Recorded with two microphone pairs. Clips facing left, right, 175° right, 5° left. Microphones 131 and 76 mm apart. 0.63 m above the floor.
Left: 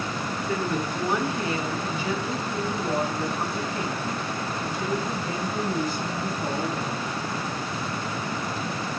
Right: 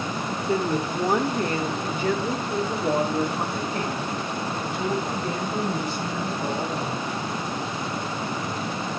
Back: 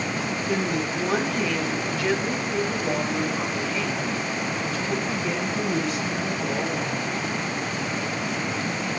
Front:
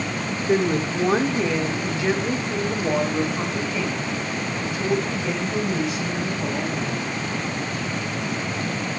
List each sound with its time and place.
0.5 s a woman speaking: 35° right, 1.2 m; by 7.1 s 80° right, 4.5 m